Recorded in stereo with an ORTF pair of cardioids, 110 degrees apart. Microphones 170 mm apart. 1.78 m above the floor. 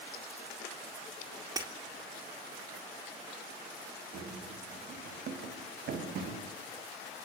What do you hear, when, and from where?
1.6 s breaking glass: 20° right, 3.5 m
4.1 s running footsteps: 65° right, 6 m